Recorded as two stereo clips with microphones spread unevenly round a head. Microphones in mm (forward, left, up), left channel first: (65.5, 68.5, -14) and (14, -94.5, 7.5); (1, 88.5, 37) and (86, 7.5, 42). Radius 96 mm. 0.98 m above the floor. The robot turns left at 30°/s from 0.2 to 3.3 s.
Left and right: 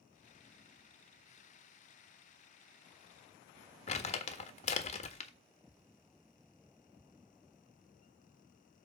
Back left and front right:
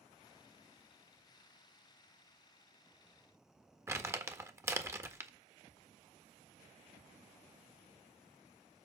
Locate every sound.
3.9 s crumpling: 25° left, 1.5 m